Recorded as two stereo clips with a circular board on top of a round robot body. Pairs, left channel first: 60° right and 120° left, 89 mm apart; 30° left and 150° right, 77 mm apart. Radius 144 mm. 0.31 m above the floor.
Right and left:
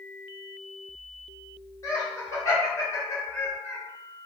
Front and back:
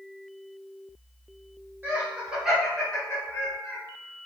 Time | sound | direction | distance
1.8 | laughter | 95° right | 1.6 m